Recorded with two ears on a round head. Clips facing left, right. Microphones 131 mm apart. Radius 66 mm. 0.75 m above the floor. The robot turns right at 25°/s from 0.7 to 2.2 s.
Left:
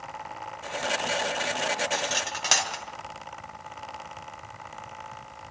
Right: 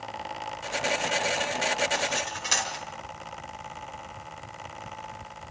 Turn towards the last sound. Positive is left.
turn(degrees=70)  # may be behind; listen again after turning